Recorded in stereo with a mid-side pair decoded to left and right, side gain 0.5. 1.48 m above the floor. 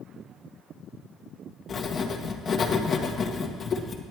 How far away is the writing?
About 1.4 m.